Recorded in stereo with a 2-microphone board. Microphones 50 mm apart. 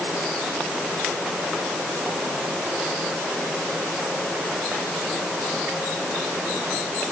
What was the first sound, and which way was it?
Only background noise.